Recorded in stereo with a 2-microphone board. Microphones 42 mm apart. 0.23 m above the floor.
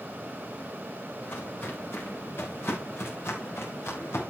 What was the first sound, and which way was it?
Footsteps, 55° left (ahead or behind).